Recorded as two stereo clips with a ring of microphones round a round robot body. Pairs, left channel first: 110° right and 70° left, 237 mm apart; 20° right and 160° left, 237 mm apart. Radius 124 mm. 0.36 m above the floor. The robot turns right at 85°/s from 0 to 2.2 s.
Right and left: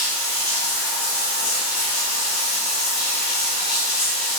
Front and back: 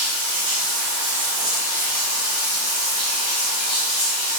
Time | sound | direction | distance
0.0 | running water | 100° left | 1.6 m